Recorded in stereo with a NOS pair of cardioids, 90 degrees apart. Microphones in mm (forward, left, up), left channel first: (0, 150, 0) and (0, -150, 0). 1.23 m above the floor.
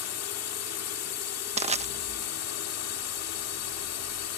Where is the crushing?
20° right.